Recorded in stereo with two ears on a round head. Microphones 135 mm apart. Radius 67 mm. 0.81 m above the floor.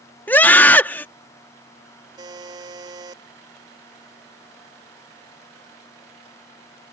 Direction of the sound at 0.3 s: 10° left (ahead or behind).